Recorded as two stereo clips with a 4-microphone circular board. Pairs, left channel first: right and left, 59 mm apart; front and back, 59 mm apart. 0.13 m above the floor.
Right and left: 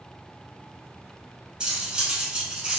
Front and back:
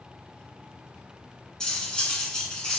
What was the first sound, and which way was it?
Cutlery clinking, 50° left.